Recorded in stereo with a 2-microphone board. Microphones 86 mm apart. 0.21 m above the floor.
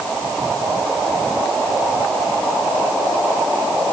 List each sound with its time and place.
Only background noise.